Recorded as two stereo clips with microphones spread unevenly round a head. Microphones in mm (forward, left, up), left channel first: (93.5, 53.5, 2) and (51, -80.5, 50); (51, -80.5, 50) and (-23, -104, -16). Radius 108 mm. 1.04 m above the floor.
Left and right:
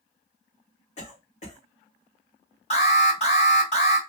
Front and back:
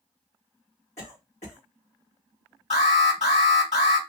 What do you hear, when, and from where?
1.0 s a cough: 60° left, 2 m
2.7 s an alarm: 50° left, 3 m